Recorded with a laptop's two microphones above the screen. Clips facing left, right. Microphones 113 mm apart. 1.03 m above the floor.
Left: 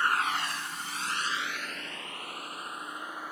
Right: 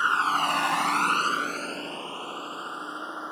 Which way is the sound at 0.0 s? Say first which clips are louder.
Right 5 dB; 20° right (ahead or behind).